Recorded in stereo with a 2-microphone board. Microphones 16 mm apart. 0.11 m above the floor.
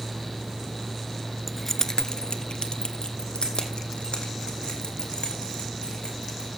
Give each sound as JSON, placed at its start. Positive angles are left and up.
{"t": 1.5, "sound": "keys jangling", "side_deg": 0, "distance_m": 0.8}